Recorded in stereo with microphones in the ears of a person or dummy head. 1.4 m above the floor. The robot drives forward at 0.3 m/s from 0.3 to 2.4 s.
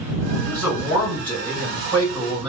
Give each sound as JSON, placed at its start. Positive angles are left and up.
{"t": 0.4, "sound": "a man speaking", "side_deg": 5, "distance_m": 1.8}